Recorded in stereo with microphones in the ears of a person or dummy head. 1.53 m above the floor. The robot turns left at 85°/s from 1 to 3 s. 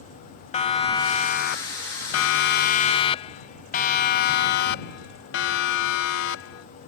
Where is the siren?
30° left (ahead or behind); by 6.7 s 80° left.